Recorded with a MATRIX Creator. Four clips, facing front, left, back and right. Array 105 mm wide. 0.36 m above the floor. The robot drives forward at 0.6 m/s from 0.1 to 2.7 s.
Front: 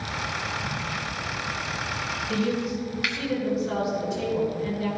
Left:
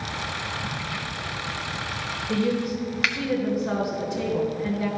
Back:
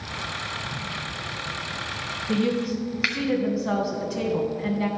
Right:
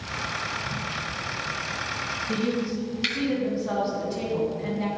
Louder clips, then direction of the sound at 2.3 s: Left 3 dB, back 3 dB; straight behind.